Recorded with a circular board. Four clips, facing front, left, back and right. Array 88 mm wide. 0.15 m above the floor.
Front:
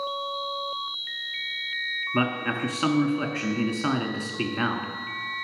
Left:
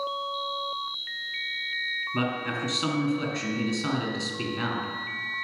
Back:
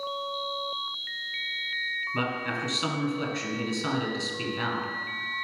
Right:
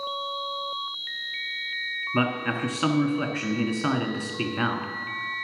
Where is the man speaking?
50° right, 1.4 m.